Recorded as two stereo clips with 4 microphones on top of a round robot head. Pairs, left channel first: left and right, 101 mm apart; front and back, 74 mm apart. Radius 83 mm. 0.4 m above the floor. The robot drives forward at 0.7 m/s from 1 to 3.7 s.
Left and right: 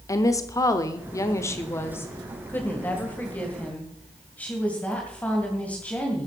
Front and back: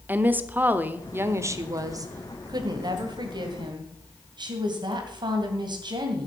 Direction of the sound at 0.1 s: 130° left.